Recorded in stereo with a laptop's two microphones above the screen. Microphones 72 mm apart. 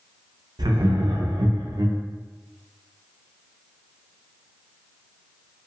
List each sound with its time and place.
0.6 s laughter: 80° right, 0.5 m